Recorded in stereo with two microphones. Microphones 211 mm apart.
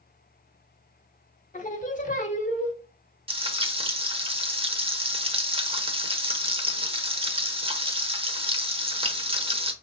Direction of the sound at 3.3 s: 25° right (ahead or behind).